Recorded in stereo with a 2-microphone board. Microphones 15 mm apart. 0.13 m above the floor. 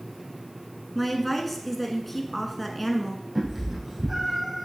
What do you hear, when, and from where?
0.9 s a woman speaking: 5° left (ahead or behind), 1.3 m
3.4 s a cat meowing: 15° right (ahead or behind), 3.5 m